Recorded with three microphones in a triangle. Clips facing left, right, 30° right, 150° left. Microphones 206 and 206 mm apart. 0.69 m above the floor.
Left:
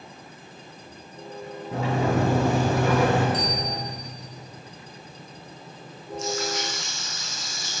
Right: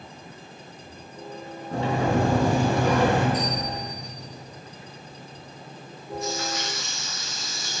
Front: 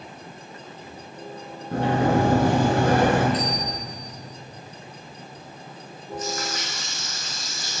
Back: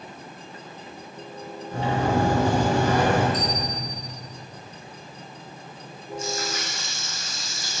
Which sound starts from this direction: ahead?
A sliding door, at 1.7 s.